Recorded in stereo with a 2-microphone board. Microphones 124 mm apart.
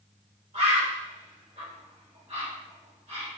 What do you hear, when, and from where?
0.5 s a bird: 65° right (ahead or behind), 2 m